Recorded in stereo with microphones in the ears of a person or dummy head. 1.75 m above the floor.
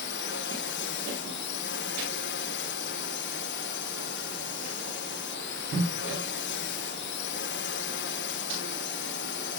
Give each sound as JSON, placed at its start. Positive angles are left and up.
{"t": 0.0, "sound": "a drone", "side_deg": 55}